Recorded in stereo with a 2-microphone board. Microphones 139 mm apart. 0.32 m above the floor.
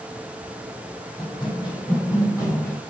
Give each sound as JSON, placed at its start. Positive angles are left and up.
{"t": 1.2, "sound": "running footsteps", "side_deg": 35, "distance_m": 6.0}